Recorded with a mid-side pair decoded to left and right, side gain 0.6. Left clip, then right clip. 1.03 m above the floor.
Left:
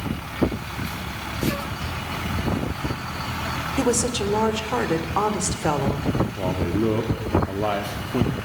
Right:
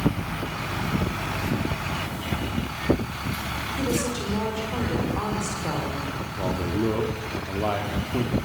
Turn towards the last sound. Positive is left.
turn(degrees=15)